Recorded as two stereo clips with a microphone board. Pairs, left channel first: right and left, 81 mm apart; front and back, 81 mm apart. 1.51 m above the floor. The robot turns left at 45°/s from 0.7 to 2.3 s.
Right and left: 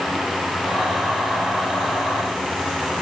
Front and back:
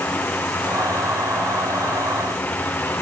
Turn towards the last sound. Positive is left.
No sound to turn to.